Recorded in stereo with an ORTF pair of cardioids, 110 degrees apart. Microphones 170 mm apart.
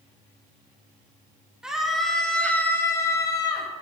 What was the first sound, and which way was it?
A scream, 5° right.